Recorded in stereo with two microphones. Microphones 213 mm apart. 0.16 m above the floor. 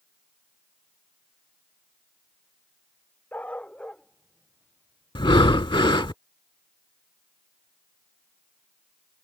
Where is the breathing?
20° left (ahead or behind).